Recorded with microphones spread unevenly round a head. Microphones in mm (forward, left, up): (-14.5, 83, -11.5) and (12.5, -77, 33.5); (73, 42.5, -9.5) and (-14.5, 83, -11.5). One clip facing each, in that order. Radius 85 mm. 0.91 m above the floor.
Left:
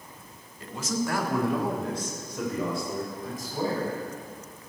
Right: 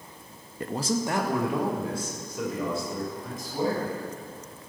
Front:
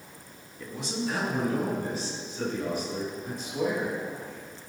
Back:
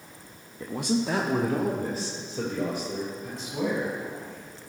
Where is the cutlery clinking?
No cutlery clinking in this recording.